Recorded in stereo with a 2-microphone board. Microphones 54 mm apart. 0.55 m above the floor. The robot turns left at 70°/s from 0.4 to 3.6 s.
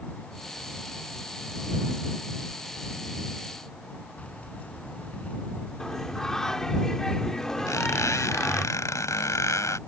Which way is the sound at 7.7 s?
80° left.